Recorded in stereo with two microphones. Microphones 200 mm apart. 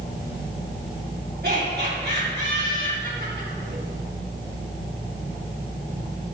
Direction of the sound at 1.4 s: 55° right (ahead or behind).